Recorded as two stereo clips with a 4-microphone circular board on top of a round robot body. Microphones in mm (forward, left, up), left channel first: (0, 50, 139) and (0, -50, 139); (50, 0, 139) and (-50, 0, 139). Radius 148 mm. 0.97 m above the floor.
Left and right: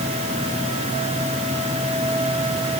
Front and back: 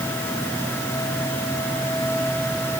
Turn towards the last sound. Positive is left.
No sound to turn to.